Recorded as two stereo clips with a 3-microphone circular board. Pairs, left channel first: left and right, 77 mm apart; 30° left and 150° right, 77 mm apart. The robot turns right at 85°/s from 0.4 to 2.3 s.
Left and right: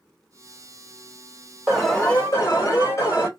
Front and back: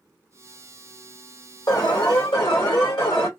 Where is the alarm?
15° right, 1.8 m; by 3.3 s 40° left, 1.8 m.